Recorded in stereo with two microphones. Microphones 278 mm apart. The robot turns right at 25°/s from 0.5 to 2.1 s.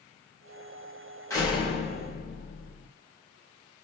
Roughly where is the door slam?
Centre.